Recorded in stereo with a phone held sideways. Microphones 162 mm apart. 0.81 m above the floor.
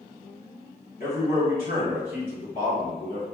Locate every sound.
1.0 s a man speaking: 55° left (ahead or behind), 1.5 m